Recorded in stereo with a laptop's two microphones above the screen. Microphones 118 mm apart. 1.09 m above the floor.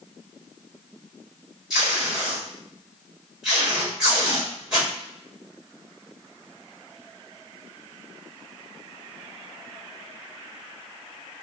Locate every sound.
1.7 s tape being pulled: 5° right (ahead or behind), 1.5 m